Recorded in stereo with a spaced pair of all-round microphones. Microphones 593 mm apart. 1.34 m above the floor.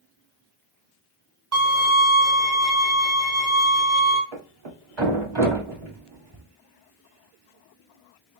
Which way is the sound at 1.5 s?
25° right (ahead or behind).